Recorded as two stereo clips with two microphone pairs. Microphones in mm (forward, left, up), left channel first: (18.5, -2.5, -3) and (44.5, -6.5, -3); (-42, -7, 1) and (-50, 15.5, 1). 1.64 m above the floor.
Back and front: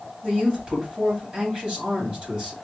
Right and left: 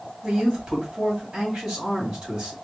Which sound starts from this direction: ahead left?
A man speaking, at 0.2 s.